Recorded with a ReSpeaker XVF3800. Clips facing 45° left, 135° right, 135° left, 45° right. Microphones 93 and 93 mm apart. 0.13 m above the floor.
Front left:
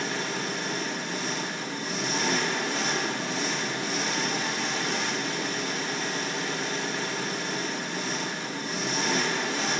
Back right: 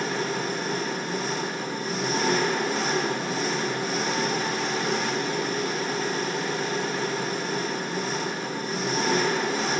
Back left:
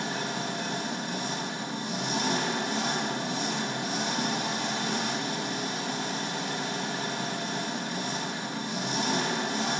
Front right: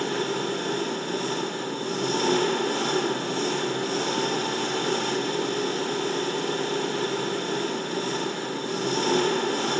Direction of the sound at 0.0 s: 50° right.